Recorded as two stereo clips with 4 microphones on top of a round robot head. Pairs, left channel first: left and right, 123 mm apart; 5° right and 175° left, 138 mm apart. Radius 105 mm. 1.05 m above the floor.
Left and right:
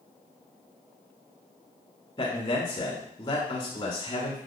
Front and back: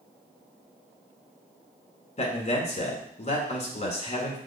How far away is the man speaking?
About 1.8 m.